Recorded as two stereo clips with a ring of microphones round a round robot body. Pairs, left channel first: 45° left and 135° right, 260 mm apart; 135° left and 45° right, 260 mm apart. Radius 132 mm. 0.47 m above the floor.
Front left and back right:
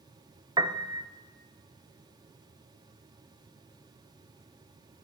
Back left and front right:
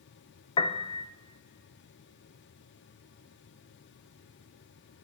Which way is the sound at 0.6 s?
170° left.